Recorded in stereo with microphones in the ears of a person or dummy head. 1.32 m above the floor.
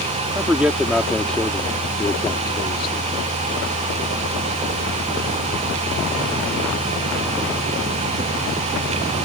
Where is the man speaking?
10° right (ahead or behind); by 3.0 s 30° left (ahead or behind).